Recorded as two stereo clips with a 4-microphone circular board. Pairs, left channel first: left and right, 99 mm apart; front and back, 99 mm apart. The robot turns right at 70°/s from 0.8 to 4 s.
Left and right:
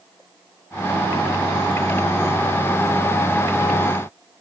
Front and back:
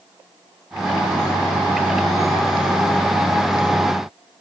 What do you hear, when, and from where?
Only background noise.